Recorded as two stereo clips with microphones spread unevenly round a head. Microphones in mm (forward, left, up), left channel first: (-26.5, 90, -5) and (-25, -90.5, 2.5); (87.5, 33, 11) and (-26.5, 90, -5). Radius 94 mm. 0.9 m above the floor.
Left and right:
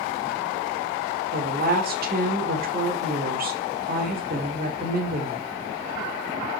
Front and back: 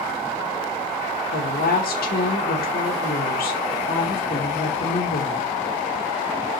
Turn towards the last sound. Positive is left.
turn(degrees=-45)